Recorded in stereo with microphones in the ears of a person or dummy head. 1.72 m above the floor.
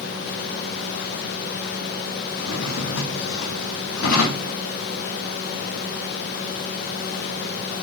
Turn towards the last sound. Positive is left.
turn(degrees=65)  # may be behind; listen again after turning